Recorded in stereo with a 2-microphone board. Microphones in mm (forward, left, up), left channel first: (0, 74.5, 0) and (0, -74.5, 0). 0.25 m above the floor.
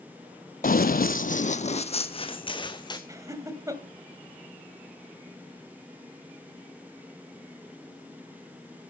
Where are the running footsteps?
65° left (ahead or behind), 0.6 m; by 3.0 s 30° left (ahead or behind), 1.5 m.